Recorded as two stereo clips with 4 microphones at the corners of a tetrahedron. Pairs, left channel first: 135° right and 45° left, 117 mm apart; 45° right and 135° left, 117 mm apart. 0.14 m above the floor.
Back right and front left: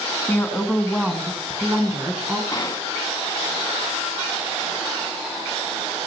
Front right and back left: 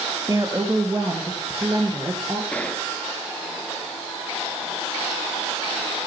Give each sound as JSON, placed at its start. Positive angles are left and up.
{"t": 0.3, "sound": "a woman speaking", "azimuth_deg": 165, "distance_m": 1.3}
{"t": 2.5, "sound": "a gunshot", "azimuth_deg": -115, "distance_m": 0.8}